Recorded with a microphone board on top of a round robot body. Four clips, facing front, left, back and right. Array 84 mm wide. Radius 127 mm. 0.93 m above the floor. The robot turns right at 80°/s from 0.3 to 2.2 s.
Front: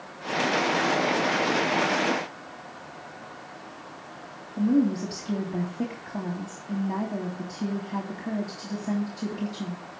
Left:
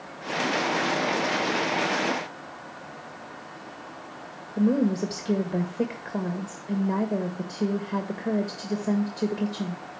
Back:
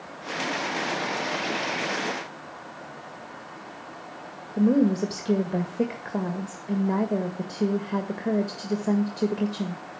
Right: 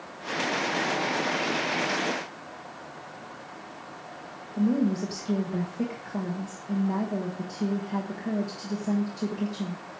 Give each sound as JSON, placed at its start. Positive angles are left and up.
{"t": 4.6, "sound": "a woman speaking", "azimuth_deg": 160, "distance_m": 1.8}